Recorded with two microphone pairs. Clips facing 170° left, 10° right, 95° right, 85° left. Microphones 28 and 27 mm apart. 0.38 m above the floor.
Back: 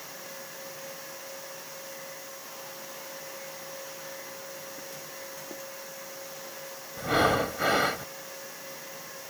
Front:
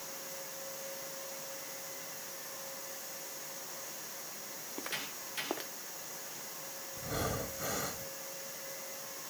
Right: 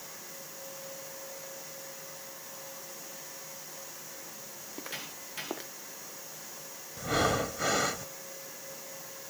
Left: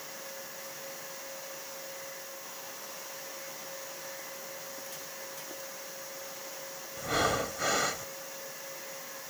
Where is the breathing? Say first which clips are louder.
Back 13 dB, right 1 dB; 175° left.